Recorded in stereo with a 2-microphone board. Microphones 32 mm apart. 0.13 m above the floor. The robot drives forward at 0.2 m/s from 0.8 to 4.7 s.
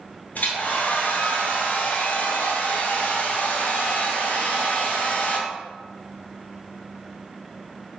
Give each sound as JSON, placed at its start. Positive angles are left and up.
{"t": 0.3, "sound": "a hair dryer", "side_deg": 55, "distance_m": 1.3}